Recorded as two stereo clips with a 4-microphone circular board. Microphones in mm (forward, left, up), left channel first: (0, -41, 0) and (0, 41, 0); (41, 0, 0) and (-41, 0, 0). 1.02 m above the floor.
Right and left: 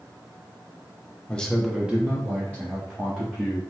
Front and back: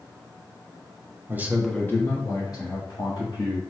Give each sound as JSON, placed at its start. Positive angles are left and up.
{"t": 1.3, "sound": "a man speaking", "azimuth_deg": -155, "distance_m": 0.7}